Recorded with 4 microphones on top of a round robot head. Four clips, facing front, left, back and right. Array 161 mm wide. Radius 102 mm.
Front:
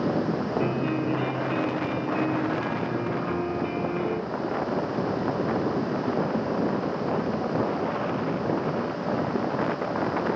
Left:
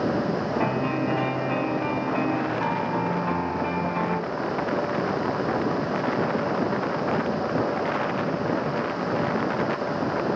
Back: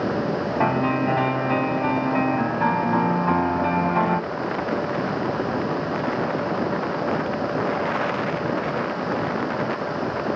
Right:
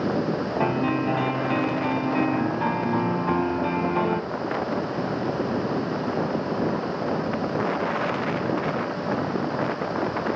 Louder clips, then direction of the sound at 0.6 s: Right 1 dB, back 5 dB; 165° right.